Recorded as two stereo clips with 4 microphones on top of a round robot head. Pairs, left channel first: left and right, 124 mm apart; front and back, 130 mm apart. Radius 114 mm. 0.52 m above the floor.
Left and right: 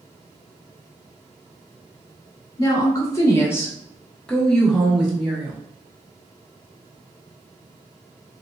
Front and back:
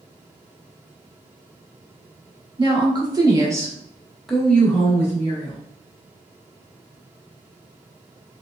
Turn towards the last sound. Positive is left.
turn(degrees=-25)